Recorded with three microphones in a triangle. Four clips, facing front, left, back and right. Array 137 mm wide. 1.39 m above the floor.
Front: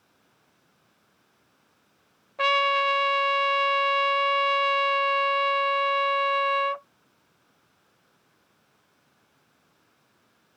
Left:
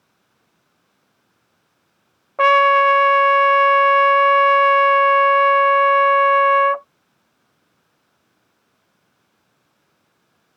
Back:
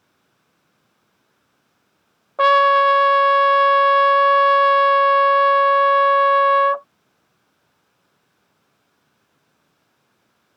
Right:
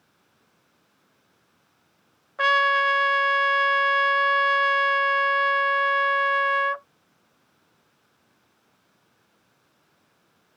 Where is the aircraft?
No aircraft in this recording.